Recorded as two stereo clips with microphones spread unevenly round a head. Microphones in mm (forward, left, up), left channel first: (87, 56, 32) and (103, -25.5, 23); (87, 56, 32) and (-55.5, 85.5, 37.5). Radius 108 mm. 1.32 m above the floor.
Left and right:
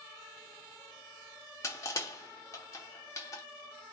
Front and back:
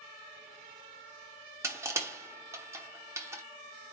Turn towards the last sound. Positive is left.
turn(degrees=110)